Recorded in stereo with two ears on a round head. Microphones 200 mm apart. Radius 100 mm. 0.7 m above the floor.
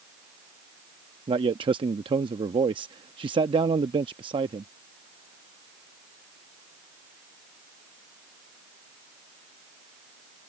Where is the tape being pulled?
I don't hear tape being pulled.